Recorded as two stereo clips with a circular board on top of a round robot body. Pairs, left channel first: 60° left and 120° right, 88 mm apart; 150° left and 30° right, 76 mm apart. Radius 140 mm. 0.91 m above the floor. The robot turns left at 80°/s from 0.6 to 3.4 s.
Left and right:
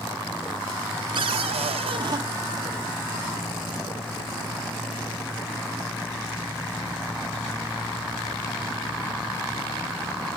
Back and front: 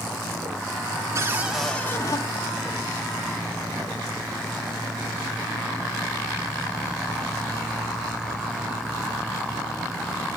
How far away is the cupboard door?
About 0.9 m.